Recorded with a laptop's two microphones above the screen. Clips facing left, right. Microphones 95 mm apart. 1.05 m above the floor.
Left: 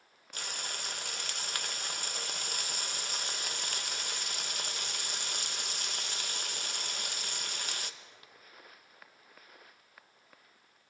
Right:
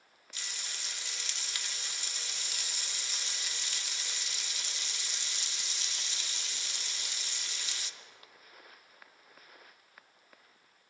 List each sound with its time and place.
0.3 s frying: 50° left (ahead or behind), 1.0 m